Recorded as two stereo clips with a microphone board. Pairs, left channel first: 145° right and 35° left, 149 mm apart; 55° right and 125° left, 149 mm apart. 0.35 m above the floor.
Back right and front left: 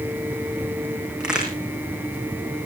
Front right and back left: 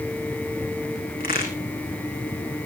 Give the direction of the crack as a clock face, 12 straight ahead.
2 o'clock.